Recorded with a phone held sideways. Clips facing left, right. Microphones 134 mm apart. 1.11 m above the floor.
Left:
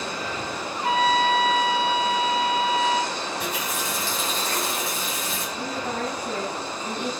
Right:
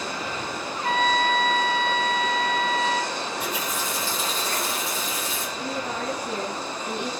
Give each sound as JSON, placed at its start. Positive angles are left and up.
{"t": 0.8, "sound": "a trumpet", "side_deg": 15, "distance_m": 1.3}
{"t": 3.4, "sound": "a running tap", "side_deg": 85, "distance_m": 6.0}
{"t": 5.6, "sound": "a woman speaking", "side_deg": 80, "distance_m": 5.5}